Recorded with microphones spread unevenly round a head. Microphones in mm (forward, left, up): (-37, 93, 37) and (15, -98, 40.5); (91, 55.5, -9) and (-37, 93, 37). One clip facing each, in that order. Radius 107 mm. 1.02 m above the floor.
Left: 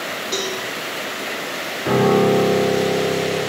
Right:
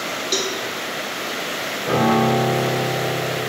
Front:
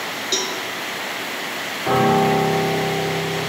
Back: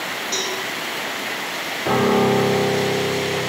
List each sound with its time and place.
0.3 s a cowbell: 5° right, 1.1 m
1.9 s a piano: 90° left, 2.5 m